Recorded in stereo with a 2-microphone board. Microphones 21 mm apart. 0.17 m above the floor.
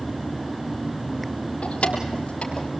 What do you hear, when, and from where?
1.6 s keys jangling: 75° left (ahead or behind), 3 m; by 2.7 s 65° left (ahead or behind), 3.5 m